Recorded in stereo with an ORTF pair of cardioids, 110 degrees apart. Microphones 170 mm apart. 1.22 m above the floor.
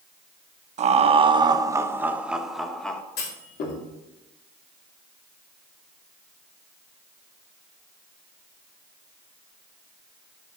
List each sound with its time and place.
0.8 s laughter: 45° right, 1.0 m; by 3.0 s 5° left, 1.5 m
3.2 s a clunk: 65° left, 3 m